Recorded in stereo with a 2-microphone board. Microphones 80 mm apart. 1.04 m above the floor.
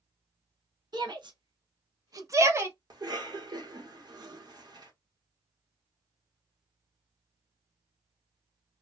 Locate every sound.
0.9 s a shout: 60° right (ahead or behind), 0.8 m; by 2.8 s 30° right (ahead or behind), 1.0 m
2.9 s a cough: 60° right (ahead or behind), 1.2 m